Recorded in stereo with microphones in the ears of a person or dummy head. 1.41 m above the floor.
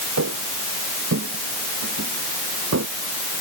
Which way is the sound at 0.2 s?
75° right (ahead or behind).